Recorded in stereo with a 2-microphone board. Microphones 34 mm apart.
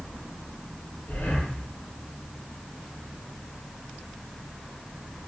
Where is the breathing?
80° left, 3 m.